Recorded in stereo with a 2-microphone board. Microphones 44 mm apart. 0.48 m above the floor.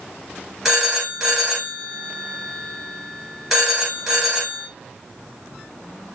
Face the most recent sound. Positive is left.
turn(degrees=5)  # may be behind; listen again after turning